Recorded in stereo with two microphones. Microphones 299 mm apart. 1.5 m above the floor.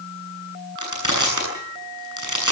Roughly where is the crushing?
Right.